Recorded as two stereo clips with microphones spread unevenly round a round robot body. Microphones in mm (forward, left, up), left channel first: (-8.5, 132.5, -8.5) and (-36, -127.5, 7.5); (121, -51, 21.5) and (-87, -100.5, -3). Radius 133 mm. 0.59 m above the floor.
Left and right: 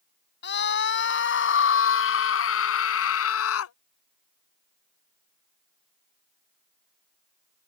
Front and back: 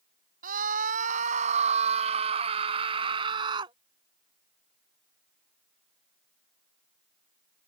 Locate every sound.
0.4 s a scream: 135° left; by 3.8 s 120° left